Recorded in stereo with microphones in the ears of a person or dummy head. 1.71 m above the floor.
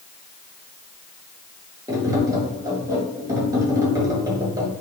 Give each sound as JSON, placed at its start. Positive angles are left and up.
{"t": 1.9, "sound": "tapping", "side_deg": -20, "distance_m": 1.3}